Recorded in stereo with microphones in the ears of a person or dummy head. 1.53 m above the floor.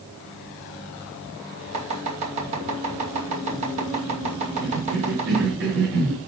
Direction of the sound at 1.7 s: 40° right (ahead or behind).